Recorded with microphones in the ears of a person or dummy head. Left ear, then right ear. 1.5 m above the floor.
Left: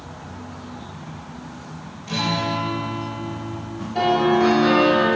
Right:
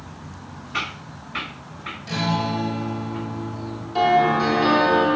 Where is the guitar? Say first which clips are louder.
Left 2 dB; 45° right (ahead or behind), 4 m.